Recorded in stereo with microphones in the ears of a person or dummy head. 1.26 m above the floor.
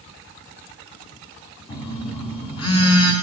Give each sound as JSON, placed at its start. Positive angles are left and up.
{"t": 1.7, "sound": "a phone buzzing", "side_deg": 30, "distance_m": 2.5}